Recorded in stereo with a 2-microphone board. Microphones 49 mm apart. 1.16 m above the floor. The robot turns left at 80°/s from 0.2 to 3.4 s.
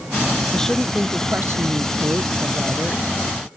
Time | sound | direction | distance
0.5 | a woman speaking | 20° left | ?